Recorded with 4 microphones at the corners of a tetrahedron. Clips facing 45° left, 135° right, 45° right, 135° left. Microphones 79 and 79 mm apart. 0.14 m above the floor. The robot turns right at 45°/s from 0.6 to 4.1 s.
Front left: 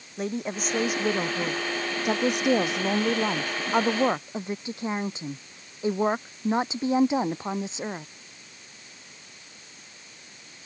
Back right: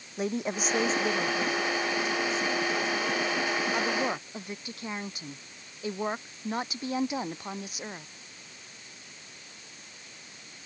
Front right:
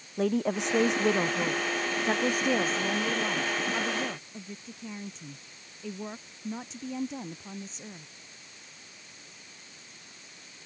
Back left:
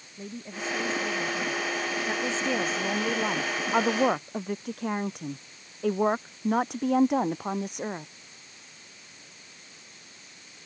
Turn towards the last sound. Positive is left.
turn(degrees=110)